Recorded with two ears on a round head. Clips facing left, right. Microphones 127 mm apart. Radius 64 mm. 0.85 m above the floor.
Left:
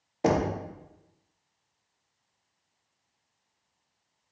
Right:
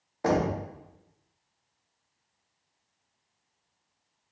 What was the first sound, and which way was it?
Knocking, 25° left (ahead or behind).